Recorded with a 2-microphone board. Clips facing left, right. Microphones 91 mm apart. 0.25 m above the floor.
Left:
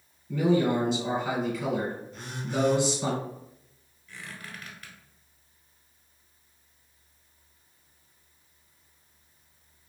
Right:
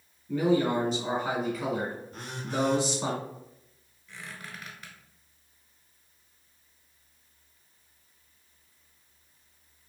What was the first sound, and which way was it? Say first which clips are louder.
A man speaking: left 1 dB; 35° right (ahead or behind).